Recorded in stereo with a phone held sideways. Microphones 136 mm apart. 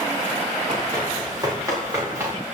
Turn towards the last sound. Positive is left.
turn(degrees=-20)  # may be behind; listen again after turning